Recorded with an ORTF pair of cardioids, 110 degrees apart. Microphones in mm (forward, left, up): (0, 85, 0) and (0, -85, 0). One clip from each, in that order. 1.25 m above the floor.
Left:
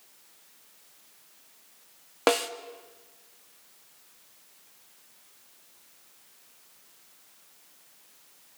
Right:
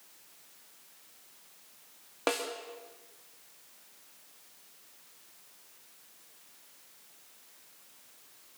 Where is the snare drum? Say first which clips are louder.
Left 7 dB; 35° left, 2.0 m.